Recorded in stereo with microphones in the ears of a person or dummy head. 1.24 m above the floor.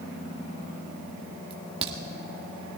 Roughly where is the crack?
Right.